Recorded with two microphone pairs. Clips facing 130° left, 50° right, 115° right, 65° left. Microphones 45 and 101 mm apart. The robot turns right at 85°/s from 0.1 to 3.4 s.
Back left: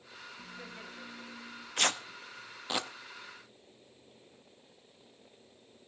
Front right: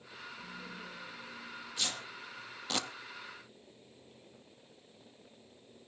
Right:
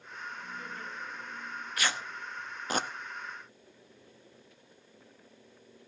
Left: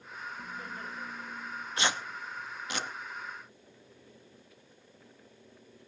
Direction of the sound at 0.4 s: 100° left.